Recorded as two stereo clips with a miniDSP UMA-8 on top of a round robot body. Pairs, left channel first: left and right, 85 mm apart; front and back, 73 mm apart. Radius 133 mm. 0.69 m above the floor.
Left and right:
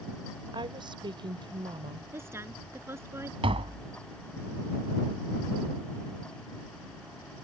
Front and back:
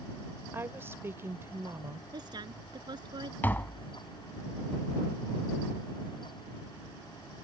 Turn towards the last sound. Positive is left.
turn(degrees=-70)